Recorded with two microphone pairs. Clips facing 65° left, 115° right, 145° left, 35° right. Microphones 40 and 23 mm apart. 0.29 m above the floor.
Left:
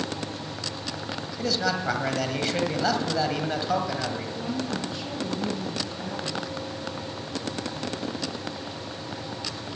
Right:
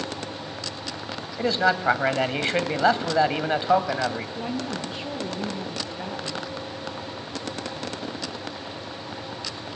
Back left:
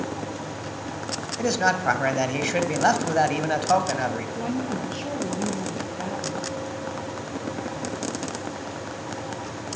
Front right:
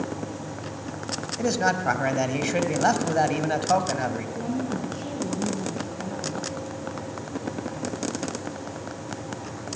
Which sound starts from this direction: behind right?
A man speaking, at 1.4 s.